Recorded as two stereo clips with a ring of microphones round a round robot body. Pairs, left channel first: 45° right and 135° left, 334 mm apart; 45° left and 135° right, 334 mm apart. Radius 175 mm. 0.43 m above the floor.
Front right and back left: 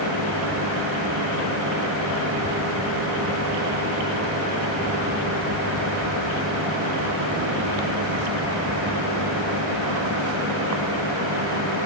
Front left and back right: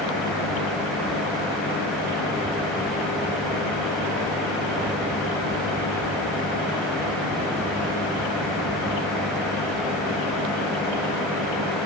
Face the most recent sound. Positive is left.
No sound to turn to.